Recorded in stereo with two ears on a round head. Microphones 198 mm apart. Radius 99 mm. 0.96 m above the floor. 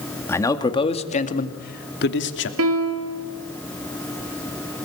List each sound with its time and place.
0.3 s a man speaking: 10° left (ahead or behind), 2 m; by 2.5 s 55° left (ahead or behind), 2.5 m
2.6 s a piano: 65° right (ahead or behind), 2 m